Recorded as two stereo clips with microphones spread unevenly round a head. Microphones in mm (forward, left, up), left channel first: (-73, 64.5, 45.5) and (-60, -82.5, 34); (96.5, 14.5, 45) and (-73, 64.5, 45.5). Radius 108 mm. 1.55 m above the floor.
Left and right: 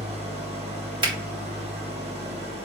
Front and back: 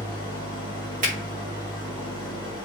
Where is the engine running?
130° right, 2 m.